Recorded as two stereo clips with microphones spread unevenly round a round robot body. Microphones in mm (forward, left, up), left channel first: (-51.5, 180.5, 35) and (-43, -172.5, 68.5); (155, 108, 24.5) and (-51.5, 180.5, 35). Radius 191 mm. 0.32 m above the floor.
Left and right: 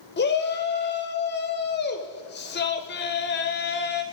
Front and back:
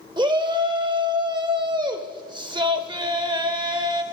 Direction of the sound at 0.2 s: 100° left.